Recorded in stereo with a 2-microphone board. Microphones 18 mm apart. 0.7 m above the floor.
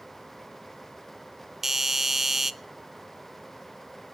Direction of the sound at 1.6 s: 20° right (ahead or behind).